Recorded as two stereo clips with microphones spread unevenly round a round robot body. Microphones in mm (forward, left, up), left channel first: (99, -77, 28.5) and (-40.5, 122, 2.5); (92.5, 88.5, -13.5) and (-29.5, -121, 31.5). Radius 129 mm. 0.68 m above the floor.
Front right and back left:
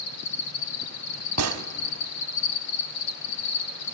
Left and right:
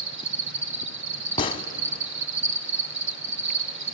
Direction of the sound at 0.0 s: 85° right.